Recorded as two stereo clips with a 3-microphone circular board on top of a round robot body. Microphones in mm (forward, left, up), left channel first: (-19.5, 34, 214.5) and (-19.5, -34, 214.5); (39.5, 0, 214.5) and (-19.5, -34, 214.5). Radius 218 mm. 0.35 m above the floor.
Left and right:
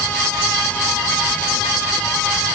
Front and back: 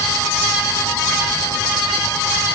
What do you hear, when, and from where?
Only background noise.